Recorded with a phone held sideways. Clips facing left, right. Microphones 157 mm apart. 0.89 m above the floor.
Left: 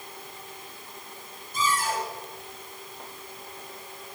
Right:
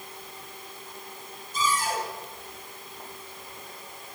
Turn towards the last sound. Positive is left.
turn(degrees=55)  # may be behind; listen again after turning